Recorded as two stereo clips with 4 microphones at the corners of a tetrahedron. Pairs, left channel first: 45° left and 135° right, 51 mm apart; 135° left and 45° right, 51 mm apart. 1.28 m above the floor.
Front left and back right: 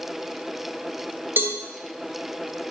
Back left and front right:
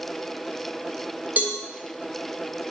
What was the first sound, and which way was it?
A cowbell, 100° right.